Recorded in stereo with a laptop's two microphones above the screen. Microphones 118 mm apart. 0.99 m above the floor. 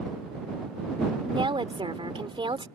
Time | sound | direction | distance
1.2 | a woman speaking | 45° right (ahead or behind) | ?